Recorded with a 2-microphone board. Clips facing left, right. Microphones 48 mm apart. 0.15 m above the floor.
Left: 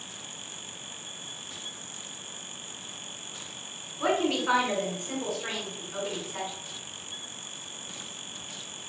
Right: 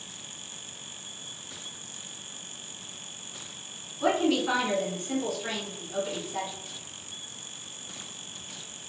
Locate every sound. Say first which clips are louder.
4.0 s a woman speaking: right 1 dB; 25° left (ahead or behind), 1.3 m